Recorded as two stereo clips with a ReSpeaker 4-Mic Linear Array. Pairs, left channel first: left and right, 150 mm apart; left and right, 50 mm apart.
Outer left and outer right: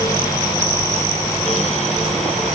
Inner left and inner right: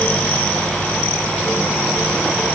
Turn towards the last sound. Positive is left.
No sound to turn to.